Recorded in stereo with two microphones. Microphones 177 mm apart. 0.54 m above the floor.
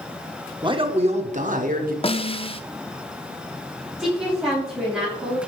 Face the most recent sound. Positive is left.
turn(degrees=-5)  # may be behind; listen again after turning